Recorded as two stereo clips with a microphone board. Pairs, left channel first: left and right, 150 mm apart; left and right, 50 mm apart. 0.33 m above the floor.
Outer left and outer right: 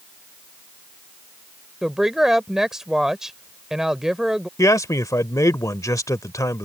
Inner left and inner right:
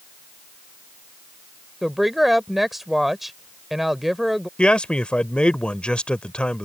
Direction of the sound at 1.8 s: 5° right (ahead or behind).